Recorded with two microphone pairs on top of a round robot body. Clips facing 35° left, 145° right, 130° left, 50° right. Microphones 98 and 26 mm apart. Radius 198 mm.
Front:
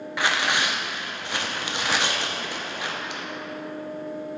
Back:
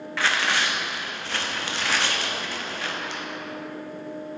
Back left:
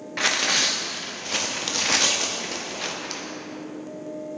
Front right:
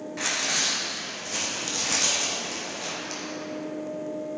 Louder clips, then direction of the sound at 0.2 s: Even, back left 5 dB; 105° left.